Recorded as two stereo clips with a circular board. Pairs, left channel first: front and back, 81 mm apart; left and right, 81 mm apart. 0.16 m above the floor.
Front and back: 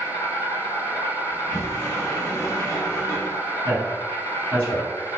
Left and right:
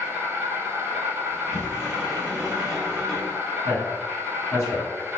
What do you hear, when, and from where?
0.0 s an insect: 15° right, 1.3 m
1.3 s a sliding door: straight ahead, 1.9 m
3.6 s a man speaking: 60° left, 1.5 m